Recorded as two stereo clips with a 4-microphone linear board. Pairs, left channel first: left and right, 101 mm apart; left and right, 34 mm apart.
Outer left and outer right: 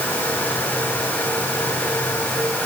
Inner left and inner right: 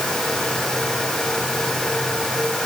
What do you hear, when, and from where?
Only background noise.